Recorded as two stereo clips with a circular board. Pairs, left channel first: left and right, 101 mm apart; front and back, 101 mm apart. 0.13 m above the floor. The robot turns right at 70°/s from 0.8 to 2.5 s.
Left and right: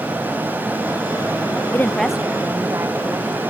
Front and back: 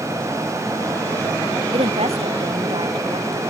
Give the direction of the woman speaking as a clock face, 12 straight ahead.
7 o'clock.